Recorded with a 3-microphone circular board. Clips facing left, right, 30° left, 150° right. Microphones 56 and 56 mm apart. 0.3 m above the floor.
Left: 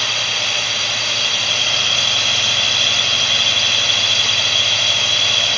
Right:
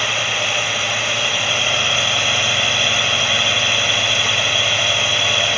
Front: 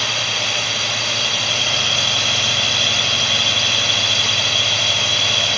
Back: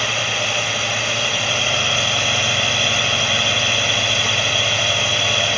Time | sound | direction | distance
0.0 | a drone | 130° right | ?